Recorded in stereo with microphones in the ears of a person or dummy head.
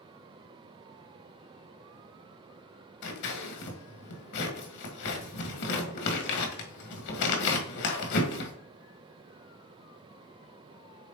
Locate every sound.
3.0 s scissors: 60° left (ahead or behind), 1.8 m